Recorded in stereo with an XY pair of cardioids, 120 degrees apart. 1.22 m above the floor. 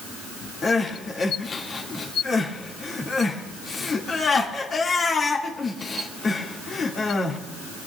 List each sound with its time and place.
0.6 s crying: 35° left, 2 m